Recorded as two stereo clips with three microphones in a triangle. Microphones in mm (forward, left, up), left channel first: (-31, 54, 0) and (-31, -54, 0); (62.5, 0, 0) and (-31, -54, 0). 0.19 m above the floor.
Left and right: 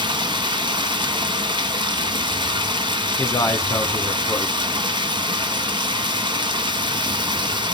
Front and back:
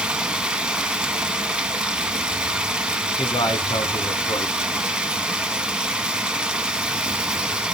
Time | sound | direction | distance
0.0 | running water | 70° right | 1.0 m
3.2 | a man speaking | 45° left | 1.3 m